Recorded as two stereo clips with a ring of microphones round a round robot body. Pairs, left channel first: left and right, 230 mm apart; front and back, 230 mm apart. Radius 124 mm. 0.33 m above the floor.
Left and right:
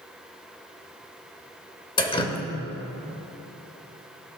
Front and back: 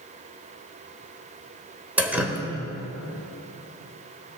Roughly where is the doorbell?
I don't hear a doorbell.